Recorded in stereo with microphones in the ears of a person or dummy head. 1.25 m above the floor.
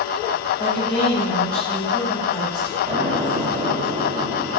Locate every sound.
0.6 s a woman speaking: 10° left (ahead or behind), 3.5 m
2.9 s an explosion: 30° right (ahead or behind), 4 m